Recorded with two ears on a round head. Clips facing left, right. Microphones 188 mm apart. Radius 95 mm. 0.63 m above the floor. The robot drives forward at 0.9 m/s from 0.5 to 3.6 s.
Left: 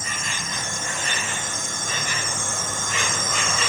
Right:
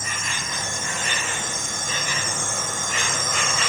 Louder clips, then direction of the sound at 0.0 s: Even; 30° left (ahead or behind).